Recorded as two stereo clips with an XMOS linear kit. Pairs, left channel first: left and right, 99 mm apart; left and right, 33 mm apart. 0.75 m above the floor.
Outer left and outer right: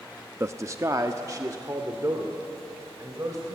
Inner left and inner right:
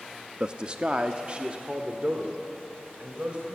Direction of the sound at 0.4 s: 25° right (ahead or behind).